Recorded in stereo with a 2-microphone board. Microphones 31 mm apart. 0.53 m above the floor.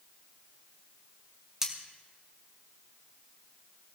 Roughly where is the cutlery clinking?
Centre.